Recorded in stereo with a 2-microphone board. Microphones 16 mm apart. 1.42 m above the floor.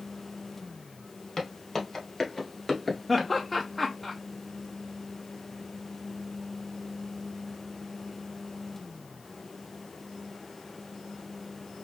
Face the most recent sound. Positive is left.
turn(degrees=10)  # may be behind; listen again after turning